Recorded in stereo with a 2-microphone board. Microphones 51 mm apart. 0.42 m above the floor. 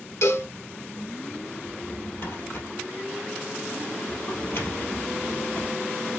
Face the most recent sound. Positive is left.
turn(degrees=50)  # may be behind; listen again after turning